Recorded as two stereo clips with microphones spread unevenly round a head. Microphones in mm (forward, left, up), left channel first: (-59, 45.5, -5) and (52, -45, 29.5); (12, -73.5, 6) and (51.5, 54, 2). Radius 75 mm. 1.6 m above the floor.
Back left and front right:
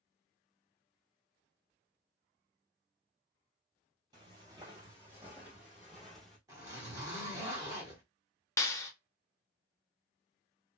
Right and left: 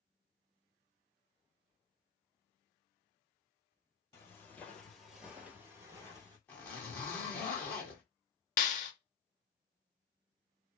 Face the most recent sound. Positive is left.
turn(degrees=-140)